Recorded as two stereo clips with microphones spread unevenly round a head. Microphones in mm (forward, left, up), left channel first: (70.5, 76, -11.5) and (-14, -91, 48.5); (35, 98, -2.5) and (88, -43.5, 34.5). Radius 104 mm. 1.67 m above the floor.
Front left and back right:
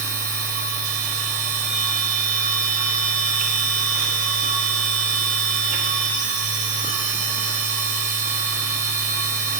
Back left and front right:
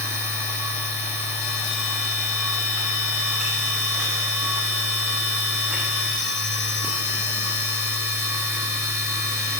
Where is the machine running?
145° right, 1.6 m.